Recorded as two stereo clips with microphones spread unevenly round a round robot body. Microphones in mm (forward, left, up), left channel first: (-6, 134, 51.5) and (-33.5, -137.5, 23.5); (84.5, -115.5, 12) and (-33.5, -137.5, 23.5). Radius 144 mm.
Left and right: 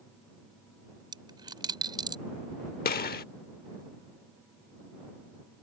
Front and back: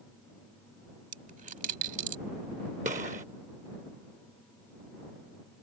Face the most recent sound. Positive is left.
turn(degrees=140)